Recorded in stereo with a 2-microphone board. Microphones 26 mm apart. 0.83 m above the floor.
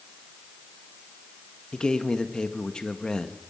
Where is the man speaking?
30° left (ahead or behind), 1.0 m.